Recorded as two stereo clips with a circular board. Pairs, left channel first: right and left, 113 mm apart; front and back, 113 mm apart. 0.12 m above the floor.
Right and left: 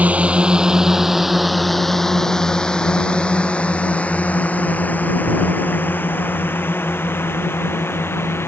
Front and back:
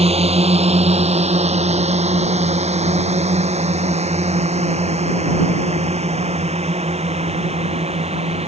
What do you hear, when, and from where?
0.0 s a drone: 165° left; by 8.5 s 160° right